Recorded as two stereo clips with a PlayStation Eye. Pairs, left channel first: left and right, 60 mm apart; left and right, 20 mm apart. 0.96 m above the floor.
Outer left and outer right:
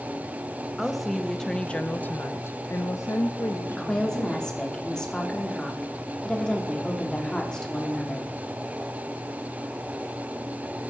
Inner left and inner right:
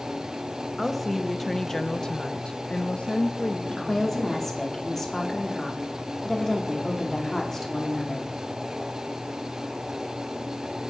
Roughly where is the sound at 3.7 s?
Centre.